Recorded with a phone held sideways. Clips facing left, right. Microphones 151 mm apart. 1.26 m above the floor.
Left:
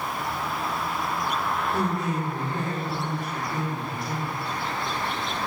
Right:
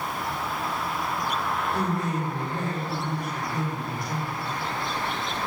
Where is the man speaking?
25° left (ahead or behind), 4 m.